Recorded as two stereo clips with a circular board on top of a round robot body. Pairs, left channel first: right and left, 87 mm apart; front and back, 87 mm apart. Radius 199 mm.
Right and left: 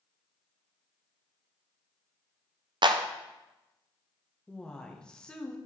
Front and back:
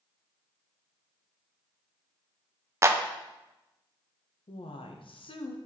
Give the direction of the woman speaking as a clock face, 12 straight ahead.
12 o'clock.